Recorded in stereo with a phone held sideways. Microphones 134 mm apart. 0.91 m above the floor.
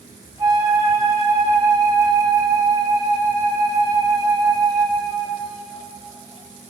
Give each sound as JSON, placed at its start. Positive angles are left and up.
{"t": 0.4, "sound": "a flute", "side_deg": -25, "distance_m": 1.1}